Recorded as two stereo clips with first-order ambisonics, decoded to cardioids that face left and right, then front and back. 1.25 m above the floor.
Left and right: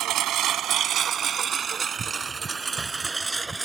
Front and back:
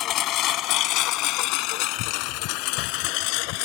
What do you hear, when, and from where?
0.0 s a lawn mower: 45° right; by 3.6 s 10° right